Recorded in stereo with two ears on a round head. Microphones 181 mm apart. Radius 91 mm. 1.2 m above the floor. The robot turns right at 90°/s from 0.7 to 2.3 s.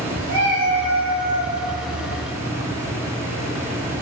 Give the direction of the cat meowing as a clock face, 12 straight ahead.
1 o'clock.